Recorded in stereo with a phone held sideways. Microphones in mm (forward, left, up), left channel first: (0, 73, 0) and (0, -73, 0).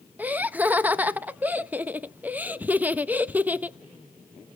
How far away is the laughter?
About 0.7 m.